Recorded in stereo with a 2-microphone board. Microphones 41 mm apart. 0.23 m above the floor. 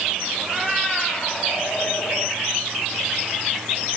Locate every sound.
0.4 s a cat meowing: centre (ahead or behind), 3 m; by 2.4 s 65° left (ahead or behind), 2.5 m